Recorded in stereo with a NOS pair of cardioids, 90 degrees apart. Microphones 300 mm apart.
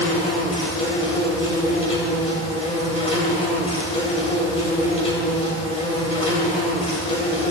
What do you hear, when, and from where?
0.0 s an insect: 20° left, 4 m